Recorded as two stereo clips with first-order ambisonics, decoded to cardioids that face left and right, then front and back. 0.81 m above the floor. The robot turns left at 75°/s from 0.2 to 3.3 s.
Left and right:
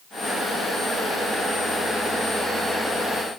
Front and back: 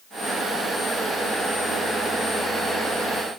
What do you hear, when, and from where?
Only background noise.